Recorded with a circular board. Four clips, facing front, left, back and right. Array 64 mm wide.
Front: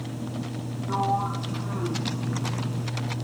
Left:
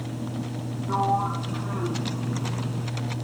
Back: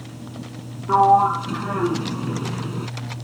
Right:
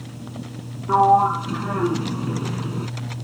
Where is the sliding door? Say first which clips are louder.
Right 9 dB, back 12 dB; 140° right.